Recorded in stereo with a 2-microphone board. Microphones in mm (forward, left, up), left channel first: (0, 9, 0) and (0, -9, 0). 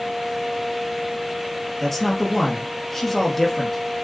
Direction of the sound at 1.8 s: 15° left (ahead or behind).